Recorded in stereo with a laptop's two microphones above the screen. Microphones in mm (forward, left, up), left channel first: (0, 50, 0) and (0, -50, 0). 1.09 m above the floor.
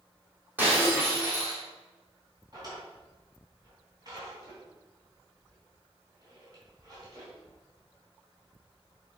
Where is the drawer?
40° right (ahead or behind), 3.5 m.